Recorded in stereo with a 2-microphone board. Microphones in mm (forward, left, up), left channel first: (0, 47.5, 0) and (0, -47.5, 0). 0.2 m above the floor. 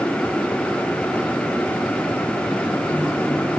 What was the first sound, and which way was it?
Only background noise.